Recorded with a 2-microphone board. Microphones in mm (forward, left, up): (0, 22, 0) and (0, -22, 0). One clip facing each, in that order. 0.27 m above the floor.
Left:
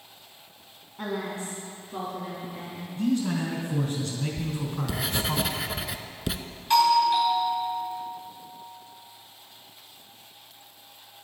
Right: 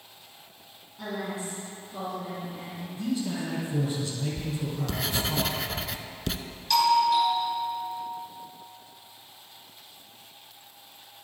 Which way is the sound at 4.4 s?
10° left (ahead or behind).